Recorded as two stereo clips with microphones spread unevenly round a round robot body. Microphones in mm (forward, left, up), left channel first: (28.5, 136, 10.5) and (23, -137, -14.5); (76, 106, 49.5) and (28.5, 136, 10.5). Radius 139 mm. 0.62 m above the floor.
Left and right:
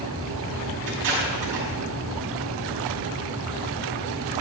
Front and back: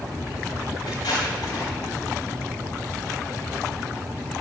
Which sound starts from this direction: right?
Tape being pulled, at 0.9 s.